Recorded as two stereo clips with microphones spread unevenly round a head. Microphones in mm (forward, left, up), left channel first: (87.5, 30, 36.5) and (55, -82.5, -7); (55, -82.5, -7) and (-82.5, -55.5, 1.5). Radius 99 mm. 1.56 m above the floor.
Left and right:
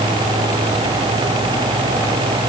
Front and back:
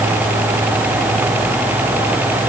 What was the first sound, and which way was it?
Only background noise.